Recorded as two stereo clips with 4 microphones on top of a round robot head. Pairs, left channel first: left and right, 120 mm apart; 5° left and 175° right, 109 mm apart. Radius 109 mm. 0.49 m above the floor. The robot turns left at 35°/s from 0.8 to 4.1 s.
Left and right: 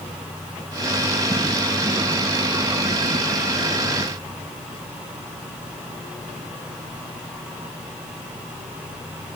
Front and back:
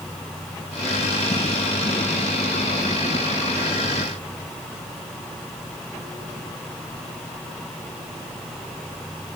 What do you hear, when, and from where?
Only background noise.